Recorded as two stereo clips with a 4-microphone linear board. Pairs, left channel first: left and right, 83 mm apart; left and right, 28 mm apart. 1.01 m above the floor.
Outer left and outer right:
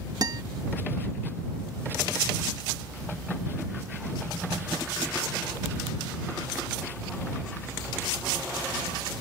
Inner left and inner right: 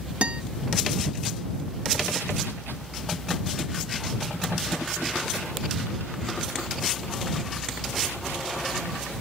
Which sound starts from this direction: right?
A guitar, at 0.2 s.